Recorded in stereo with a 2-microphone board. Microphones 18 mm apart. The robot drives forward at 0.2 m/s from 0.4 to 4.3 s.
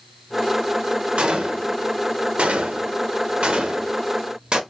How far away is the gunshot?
About 0.5 m.